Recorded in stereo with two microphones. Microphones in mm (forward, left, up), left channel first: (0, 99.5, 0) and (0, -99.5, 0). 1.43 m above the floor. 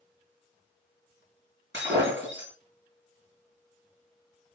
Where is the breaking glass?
70° right (ahead or behind), 7 m.